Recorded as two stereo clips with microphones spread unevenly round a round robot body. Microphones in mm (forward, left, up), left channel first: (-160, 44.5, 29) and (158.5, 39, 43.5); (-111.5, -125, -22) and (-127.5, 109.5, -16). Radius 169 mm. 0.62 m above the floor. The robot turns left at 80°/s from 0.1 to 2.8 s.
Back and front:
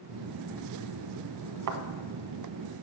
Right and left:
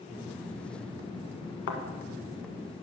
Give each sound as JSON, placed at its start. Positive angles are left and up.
{"t": 1.7, "sound": "a thud", "azimuth_deg": -40, "distance_m": 1.0}